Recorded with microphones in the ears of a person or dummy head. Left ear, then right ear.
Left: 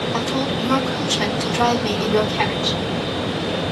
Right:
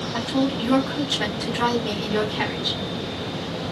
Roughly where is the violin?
No violin in this recording.